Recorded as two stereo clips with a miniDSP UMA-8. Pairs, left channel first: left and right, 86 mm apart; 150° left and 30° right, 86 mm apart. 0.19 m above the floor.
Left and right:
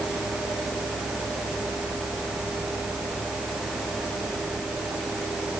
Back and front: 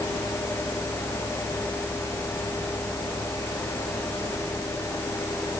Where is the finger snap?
I don't hear a finger snap.